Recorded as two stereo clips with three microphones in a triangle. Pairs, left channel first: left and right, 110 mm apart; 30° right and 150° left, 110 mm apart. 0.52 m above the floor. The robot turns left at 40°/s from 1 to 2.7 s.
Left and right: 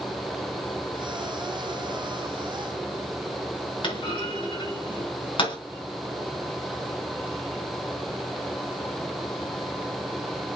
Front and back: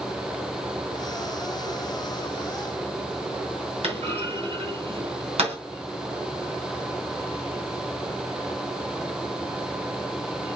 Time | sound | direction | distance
3.8 | a clunk | 130° left | 3.5 m